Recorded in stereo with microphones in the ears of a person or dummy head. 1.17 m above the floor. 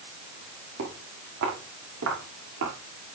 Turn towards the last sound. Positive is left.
turn(degrees=-70)  # may be behind; listen again after turning